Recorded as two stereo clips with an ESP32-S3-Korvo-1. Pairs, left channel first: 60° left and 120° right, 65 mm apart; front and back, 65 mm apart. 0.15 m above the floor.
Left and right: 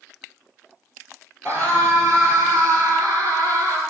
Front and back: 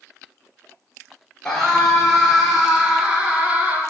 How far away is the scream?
About 3 m.